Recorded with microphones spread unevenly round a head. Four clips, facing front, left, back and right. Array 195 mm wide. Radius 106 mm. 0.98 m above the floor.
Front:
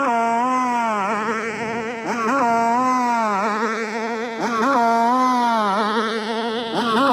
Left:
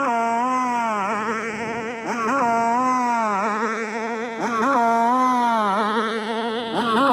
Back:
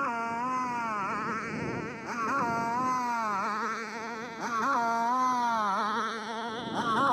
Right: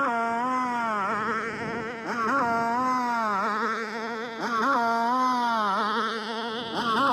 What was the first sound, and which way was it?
A motorcycle, 10° left.